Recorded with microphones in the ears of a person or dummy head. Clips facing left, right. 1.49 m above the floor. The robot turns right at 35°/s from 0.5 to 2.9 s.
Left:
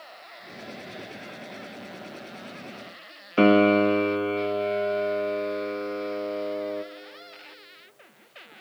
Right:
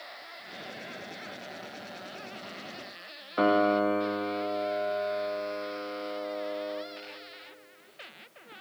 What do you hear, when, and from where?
3.4 s a piano: 35° left (ahead or behind), 0.7 m